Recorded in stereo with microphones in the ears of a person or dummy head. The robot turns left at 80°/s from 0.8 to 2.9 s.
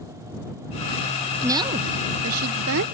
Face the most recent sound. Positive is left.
turn(degrees=-125)